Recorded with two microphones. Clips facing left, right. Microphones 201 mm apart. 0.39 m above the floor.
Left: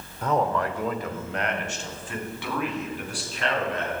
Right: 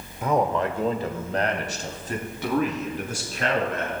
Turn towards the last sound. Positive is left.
turn(degrees=-45)  # may be behind; listen again after turning